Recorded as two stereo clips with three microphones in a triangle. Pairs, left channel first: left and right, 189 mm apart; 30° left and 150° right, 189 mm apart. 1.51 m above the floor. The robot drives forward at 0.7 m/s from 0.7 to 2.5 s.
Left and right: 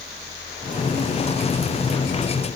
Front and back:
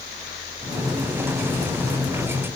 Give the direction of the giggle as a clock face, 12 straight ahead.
I don't hear a giggle.